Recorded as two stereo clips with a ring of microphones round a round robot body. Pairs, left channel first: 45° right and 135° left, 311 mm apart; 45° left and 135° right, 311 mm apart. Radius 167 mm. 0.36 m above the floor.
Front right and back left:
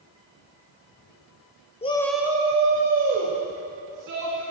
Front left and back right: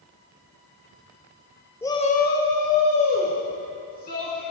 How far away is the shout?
About 0.8 m.